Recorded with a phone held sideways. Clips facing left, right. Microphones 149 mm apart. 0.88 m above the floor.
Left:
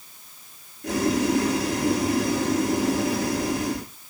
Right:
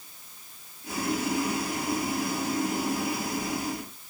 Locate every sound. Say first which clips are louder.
0.8 s boiling: left 7 dB; 75° left (ahead or behind), 3 m